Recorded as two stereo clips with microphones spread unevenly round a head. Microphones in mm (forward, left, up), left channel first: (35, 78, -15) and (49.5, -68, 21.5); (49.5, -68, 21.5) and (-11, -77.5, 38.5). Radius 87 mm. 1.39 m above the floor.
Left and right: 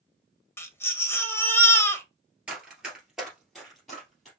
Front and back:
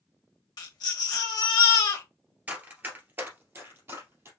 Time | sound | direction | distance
0.6 | a baby crying | 20° left | 1.1 m
2.5 | running footsteps | 150° right | 1.8 m